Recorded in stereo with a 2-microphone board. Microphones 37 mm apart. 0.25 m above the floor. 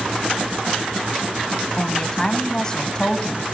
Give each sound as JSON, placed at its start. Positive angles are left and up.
{"t": 1.8, "sound": "a woman speaking", "side_deg": 25, "distance_m": 2.0}